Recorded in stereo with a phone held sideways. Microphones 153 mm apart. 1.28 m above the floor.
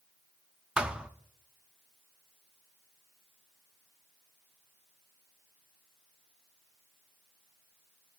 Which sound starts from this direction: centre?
A thud, at 0.8 s.